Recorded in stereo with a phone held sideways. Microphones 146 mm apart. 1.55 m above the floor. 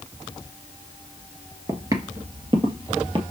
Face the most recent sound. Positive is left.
turn(degrees=-35)  # may be behind; listen again after turning